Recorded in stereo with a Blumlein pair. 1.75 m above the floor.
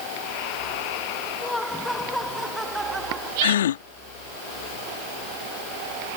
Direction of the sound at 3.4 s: 60° left.